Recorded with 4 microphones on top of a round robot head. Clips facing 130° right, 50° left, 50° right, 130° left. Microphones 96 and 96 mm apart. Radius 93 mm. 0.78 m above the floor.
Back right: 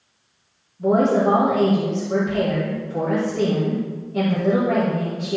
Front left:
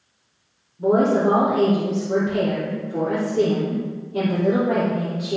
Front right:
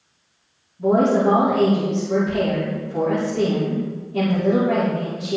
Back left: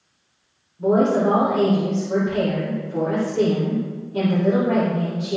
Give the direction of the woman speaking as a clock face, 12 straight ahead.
10 o'clock.